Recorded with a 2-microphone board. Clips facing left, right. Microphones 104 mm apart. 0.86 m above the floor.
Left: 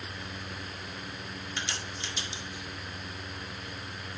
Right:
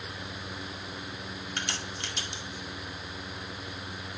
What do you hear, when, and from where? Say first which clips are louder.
1.6 s a crack: right 1 dB; 55° right (ahead or behind), 1.9 m